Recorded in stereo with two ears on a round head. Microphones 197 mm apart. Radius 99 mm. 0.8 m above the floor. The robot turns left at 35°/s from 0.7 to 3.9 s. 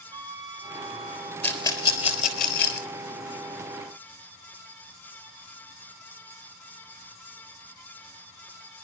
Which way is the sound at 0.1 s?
20° right (ahead or behind).